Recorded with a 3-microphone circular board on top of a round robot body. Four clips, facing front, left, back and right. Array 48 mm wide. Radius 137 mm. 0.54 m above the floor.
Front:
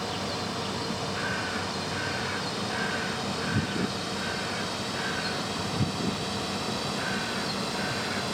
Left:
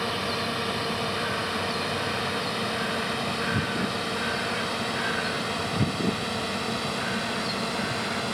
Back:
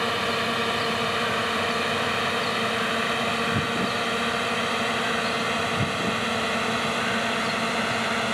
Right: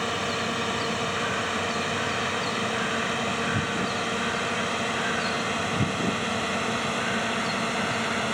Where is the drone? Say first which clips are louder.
Right 1 dB, back 7 dB; 165° right; by 8.3 s 155° right.